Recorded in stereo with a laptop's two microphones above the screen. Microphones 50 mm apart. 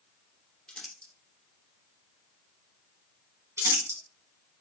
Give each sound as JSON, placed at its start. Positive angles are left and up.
{"t": 0.7, "sound": "crumpling", "side_deg": 20, "distance_m": 0.8}
{"t": 3.6, "sound": "crumpling", "side_deg": -70, "distance_m": 2.0}